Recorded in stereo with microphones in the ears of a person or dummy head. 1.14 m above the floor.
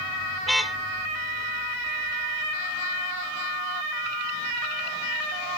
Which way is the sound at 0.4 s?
5° left (ahead or behind).